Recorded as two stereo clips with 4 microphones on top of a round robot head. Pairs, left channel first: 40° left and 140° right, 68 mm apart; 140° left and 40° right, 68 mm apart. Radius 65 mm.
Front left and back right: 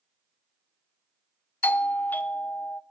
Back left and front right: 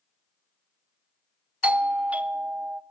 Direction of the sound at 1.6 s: 10° left.